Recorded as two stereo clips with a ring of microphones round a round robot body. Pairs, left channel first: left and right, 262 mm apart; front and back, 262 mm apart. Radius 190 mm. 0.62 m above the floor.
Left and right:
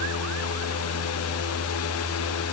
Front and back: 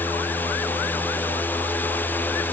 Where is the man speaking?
I don't hear a man speaking.